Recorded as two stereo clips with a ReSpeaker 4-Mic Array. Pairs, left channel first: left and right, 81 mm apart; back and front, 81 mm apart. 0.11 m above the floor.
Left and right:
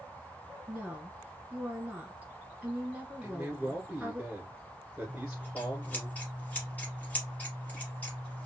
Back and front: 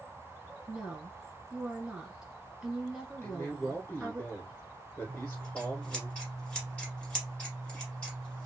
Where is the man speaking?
150° right, 2.0 m.